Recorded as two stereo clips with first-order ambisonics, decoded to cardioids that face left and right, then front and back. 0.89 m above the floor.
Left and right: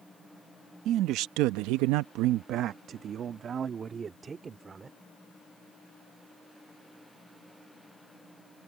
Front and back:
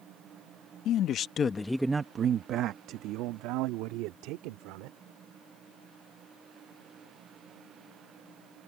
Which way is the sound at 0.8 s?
40° right.